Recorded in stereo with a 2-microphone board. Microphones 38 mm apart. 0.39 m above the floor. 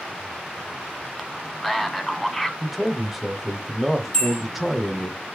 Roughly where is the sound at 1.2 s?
Centre.